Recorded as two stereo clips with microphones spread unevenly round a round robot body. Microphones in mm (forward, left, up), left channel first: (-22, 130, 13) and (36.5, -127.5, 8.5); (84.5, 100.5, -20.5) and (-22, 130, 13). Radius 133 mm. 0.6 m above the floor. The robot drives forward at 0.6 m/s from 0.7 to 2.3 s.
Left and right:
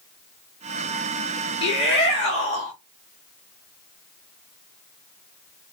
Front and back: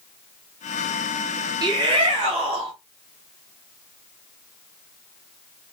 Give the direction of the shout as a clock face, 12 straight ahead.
8 o'clock.